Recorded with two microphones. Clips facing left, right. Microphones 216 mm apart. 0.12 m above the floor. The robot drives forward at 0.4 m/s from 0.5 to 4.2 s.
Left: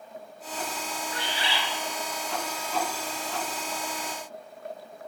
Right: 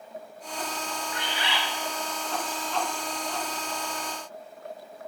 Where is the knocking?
I don't hear knocking.